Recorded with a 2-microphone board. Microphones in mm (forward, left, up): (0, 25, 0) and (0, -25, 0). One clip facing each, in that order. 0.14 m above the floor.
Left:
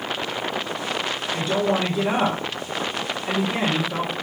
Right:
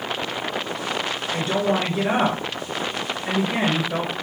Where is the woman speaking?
45° right (ahead or behind), 1.7 m.